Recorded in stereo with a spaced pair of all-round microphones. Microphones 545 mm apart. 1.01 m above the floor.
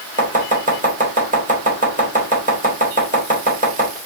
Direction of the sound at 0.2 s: 15° right (ahead or behind).